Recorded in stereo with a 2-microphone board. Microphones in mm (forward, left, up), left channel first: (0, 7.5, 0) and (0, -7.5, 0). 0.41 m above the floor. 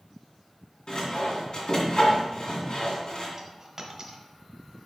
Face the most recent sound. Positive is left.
turn(degrees=-25)  # may be behind; listen again after turning